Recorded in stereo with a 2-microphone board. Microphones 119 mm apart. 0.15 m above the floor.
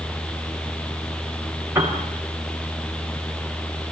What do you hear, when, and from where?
1.8 s a piano: 20° right (ahead or behind), 7 m